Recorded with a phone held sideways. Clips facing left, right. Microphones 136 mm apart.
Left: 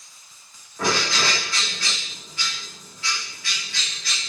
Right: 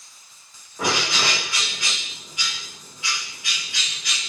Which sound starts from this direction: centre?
A bird, at 0.8 s.